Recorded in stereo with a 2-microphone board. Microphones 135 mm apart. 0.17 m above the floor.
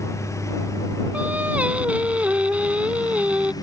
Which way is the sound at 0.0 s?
25° left (ahead or behind).